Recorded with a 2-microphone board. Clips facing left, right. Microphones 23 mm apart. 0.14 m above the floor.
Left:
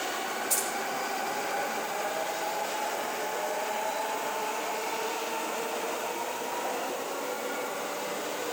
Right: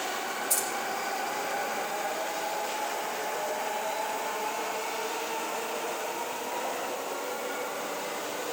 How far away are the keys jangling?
About 5 m.